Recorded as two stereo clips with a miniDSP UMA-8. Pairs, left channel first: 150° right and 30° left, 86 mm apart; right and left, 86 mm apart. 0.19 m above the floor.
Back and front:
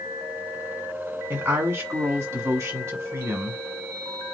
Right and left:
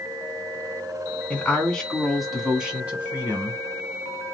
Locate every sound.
1.3 s a woman speaking: 20° right, 1.8 m; by 3.6 s 50° left, 1.6 m